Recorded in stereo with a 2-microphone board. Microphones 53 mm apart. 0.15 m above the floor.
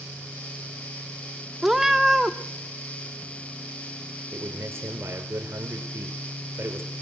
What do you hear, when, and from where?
1.6 s a cat meowing: 5° right (ahead or behind), 1.2 m
4.3 s a man speaking: 50° right (ahead or behind), 2.5 m